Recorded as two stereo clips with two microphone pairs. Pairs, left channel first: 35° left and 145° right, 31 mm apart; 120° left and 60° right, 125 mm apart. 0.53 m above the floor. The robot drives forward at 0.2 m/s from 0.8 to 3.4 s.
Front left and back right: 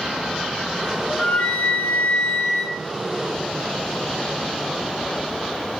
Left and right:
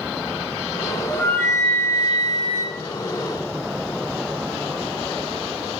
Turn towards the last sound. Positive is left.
turn(degrees=95)